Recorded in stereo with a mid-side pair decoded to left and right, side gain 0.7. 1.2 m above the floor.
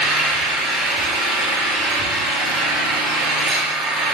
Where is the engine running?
35° right, 7 m.